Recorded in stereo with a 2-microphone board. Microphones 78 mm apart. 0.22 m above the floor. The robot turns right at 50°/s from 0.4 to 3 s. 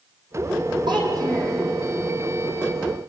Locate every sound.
0.9 s a child speaking: 70° right, 6 m; by 1.6 s 35° right, 6 m